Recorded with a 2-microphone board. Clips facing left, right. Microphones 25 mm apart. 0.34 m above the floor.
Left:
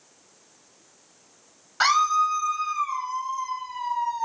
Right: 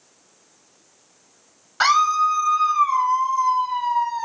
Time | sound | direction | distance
1.8 | a scream | 10° right (ahead or behind) | 1.3 m